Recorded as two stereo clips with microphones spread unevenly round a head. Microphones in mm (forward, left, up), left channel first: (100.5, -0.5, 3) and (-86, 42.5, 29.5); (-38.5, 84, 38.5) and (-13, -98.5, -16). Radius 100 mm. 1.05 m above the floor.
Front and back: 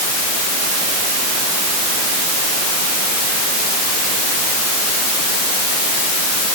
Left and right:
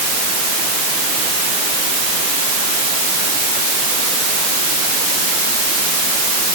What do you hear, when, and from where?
Only background noise.